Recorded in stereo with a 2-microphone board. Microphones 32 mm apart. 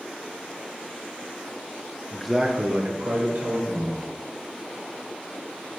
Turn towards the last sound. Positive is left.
turn(degrees=-75)  # may be behind; listen again after turning